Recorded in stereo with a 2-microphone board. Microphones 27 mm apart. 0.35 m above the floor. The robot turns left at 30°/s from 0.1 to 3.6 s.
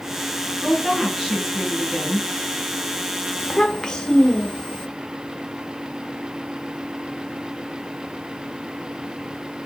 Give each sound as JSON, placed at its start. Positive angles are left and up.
{"t": 0.6, "sound": "a woman speaking", "azimuth_deg": 5, "distance_m": 1.4}
{"t": 3.4, "sound": "a child speaking", "side_deg": 20, "distance_m": 0.5}